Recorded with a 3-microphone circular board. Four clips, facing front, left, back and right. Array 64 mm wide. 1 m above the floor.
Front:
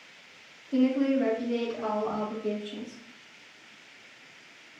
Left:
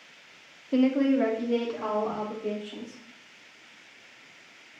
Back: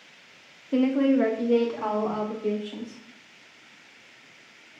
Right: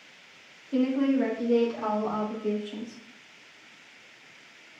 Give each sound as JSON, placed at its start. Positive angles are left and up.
{"t": 0.7, "sound": "a woman speaking", "azimuth_deg": 135, "distance_m": 0.6}